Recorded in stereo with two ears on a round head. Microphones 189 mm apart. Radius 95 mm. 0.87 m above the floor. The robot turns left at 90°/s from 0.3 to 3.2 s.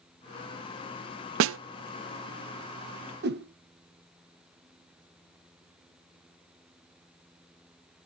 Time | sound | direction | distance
1.4 | a snare drum | 65° right (ahead or behind) | 0.5 m
3.2 | a whoosh | 50° right (ahead or behind) | 0.9 m